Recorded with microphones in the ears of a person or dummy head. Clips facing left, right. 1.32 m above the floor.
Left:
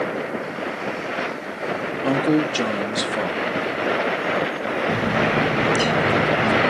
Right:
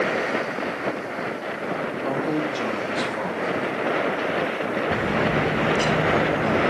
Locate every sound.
2.0 s a man speaking: 35° left (ahead or behind), 0.6 m
4.9 s a bird: 20° left (ahead or behind), 5 m